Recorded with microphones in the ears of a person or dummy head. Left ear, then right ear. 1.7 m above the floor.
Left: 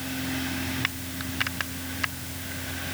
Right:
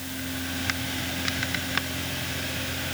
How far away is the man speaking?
I don't hear a man speaking.